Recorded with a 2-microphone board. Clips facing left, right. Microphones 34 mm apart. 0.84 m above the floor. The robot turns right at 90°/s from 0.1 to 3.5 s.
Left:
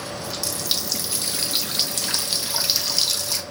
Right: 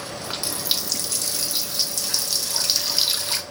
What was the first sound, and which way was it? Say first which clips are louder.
A running tap: even; 65° right.